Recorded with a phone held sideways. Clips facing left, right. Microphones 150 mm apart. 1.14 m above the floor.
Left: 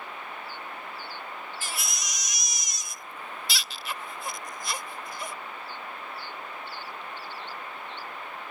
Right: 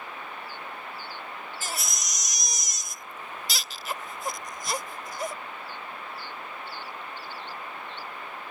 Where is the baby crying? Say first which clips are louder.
Right 1 dB; 40° right (ahead or behind).